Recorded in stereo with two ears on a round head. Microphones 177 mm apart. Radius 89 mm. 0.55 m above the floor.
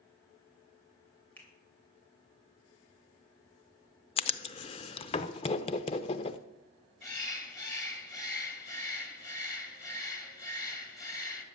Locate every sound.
1.4 s a finger snap: 10° left (ahead or behind), 2.5 m
4.2 s writing: 30° left (ahead or behind), 0.6 m
7.0 s a bird: 15° left (ahead or behind), 1.5 m